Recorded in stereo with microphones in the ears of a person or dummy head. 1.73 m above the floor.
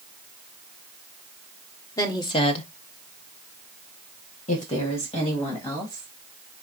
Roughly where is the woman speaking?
Centre.